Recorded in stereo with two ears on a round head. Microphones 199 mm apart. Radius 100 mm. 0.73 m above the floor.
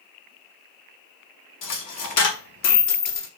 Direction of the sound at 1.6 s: 75° left (ahead or behind).